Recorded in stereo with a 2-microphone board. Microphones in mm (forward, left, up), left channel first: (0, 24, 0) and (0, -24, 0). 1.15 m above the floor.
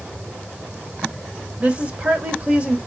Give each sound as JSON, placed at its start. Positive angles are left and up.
{"t": 1.6, "sound": "a woman speaking", "side_deg": -30, "distance_m": 0.9}